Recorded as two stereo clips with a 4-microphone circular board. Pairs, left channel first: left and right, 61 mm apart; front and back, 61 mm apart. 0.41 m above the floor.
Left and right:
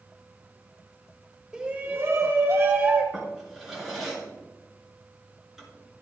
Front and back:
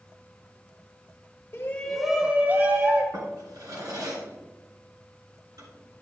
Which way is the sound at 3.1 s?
175° right.